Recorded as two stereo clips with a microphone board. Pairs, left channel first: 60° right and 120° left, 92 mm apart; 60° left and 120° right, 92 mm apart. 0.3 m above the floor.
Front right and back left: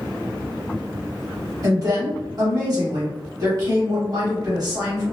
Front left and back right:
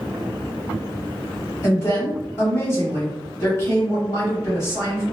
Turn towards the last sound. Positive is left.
turn(degrees=105)